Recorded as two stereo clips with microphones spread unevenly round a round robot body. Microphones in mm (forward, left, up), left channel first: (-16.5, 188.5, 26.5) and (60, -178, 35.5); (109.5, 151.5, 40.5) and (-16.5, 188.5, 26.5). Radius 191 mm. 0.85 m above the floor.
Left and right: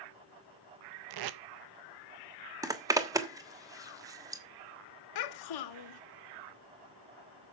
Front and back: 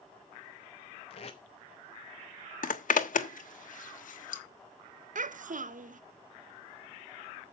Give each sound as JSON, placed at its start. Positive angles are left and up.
{"t": 1.1, "sound": "tape being pulled", "azimuth_deg": -65, "distance_m": 0.7}
{"t": 2.6, "sound": "a zipper", "azimuth_deg": 5, "distance_m": 1.3}
{"t": 5.2, "sound": "a child speaking", "azimuth_deg": 140, "distance_m": 1.1}